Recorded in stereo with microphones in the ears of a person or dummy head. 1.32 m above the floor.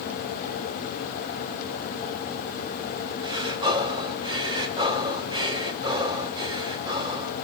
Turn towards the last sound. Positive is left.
turn(degrees=-25)  # may be behind; listen again after turning